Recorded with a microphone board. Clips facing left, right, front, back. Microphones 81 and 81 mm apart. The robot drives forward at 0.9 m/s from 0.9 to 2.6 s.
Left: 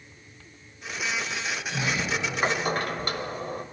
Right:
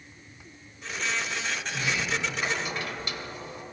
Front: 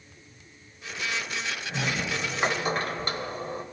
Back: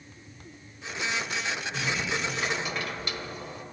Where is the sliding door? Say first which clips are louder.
Left 2 dB, front 3 dB; 30° left, 2 m; by 3.6 s 50° left, 1.5 m.